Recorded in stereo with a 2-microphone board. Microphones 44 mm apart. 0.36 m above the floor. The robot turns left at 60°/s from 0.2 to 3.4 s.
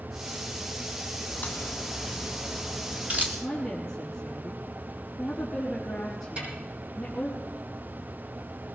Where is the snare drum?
30° right (ahead or behind), 8 m.